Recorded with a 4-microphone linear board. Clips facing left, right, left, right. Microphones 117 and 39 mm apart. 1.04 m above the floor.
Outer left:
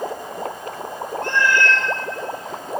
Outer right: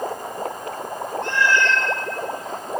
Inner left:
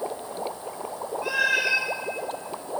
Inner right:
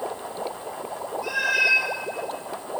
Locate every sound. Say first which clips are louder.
1.2 s a cat meowing: outer left 1 dB, inner right 1 dB; 55° left (ahead or behind), 1.1 m